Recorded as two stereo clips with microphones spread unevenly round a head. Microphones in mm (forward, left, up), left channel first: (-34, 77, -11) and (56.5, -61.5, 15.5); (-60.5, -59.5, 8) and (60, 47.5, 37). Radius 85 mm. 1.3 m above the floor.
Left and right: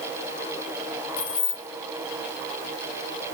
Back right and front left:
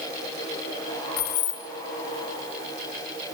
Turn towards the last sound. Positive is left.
turn(degrees=-175)